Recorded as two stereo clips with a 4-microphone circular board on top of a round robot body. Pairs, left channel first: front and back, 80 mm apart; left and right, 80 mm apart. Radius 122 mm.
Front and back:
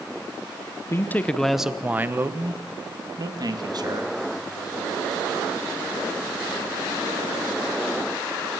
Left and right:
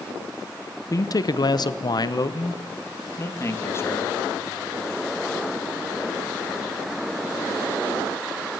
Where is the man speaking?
50° left, 1.3 m; by 4.2 s 150° left, 3.5 m.